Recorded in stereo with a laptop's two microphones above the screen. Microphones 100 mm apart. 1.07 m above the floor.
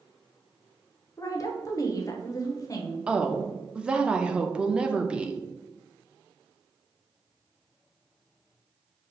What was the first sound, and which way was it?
A woman speaking, 35° left (ahead or behind).